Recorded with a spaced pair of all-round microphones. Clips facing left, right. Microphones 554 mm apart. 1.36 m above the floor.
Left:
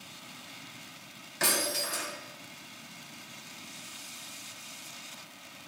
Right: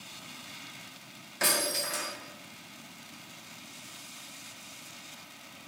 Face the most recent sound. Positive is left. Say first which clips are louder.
# even
turn(degrees=35)  # may be behind; listen again after turning